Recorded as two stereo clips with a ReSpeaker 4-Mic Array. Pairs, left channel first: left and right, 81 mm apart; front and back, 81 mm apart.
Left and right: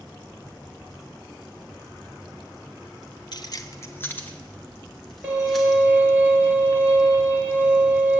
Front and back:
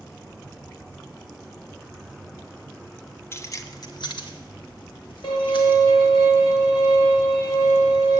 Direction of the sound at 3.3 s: 60° left.